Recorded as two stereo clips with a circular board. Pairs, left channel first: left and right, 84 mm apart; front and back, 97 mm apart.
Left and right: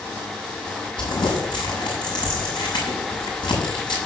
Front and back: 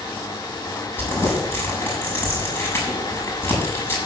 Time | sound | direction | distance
1.0 | crumpling | 70° left | 7 m